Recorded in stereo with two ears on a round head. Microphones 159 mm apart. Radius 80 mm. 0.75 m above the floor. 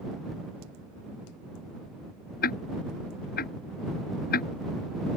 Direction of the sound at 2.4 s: 60° left (ahead or behind).